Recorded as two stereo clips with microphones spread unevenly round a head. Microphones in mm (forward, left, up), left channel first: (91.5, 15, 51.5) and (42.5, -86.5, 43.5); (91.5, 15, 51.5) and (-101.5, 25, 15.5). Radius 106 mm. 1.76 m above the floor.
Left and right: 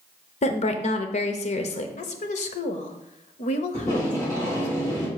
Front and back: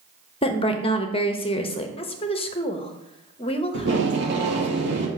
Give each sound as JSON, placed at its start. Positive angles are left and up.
{"t": 0.4, "sound": "a woman speaking", "azimuth_deg": 55, "distance_m": 0.7}
{"t": 2.0, "sound": "a woman speaking", "azimuth_deg": 60, "distance_m": 0.9}
{"t": 3.7, "sound": "tape being pulled", "azimuth_deg": 145, "distance_m": 1.5}